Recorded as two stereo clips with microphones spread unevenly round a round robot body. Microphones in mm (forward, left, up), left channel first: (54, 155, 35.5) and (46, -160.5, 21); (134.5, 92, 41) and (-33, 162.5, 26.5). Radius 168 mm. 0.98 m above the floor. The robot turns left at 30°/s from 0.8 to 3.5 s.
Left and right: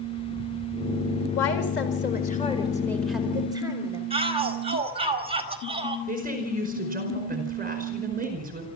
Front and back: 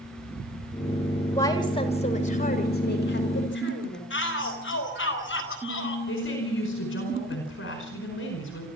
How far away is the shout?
About 4 m.